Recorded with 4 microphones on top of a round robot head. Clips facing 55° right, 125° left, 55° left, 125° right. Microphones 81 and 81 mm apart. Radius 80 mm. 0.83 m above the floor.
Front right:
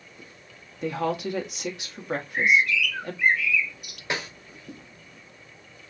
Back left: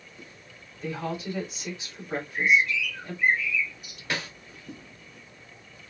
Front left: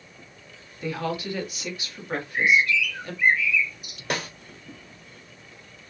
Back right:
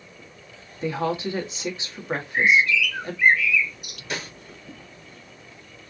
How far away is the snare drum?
About 1.4 m.